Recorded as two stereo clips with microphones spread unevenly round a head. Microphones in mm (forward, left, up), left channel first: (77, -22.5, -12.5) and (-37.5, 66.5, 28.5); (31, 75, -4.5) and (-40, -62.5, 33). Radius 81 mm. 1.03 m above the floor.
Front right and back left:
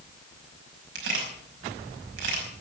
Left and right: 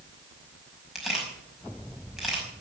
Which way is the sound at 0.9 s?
155° left.